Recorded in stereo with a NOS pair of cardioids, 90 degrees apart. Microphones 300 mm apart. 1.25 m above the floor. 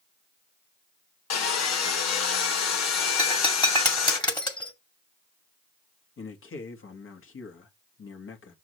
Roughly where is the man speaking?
Ahead left.